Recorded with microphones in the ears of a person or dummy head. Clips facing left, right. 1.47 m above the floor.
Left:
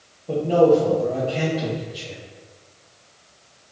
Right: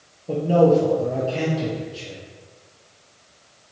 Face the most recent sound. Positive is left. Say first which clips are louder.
# even
turn(degrees=-10)  # may be behind; listen again after turning